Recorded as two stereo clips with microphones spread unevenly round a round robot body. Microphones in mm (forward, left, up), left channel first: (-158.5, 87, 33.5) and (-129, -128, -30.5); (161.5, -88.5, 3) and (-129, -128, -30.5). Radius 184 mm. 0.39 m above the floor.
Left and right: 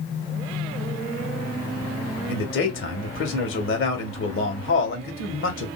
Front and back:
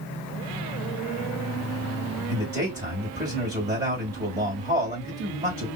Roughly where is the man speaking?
Behind left.